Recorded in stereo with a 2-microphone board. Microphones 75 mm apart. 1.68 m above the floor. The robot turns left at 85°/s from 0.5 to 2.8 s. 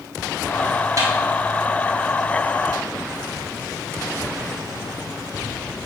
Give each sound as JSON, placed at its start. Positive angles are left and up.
{"t": 1.0, "sound": "a snare drum", "side_deg": -45, "distance_m": 3.0}